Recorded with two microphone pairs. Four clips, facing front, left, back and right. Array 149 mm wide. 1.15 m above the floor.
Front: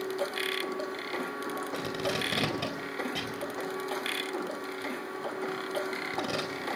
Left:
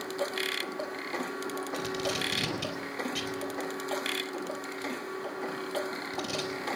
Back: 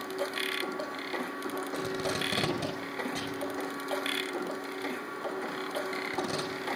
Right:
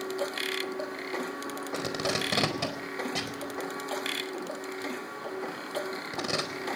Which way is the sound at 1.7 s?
90° right.